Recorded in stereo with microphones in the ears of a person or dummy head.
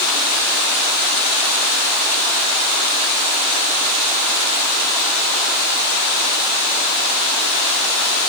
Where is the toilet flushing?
No toilet flushing in this recording.